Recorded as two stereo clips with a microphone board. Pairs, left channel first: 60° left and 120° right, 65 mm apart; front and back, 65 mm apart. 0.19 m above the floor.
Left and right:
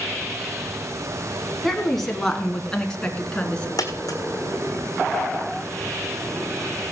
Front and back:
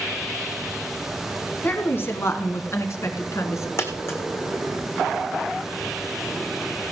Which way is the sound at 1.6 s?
25° right.